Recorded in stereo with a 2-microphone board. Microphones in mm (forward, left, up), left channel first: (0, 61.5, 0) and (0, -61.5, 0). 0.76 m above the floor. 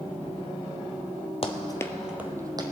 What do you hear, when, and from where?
1.4 s running footsteps: 50° left (ahead or behind), 1.0 m; by 2.6 s 30° right (ahead or behind), 1.5 m